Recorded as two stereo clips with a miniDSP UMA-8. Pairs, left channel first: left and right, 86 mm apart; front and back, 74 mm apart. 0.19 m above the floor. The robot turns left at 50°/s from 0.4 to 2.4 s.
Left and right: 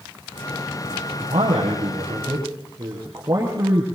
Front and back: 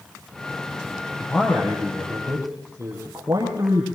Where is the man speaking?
70° right, 5 m; by 3.9 s 130° right, 5 m.